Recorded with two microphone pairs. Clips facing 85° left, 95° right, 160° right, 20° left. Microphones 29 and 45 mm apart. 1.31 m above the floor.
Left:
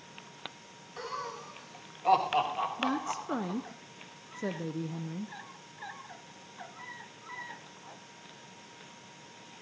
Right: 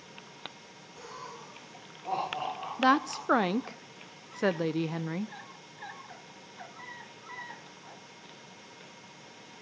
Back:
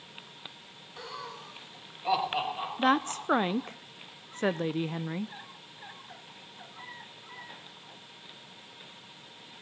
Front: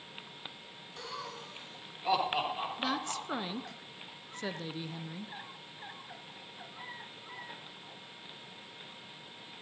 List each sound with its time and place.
1.0 s laughter: 120° left, 6 m; by 3.6 s 110° left, 7 m
2.8 s a woman speaking: 115° right, 0.5 m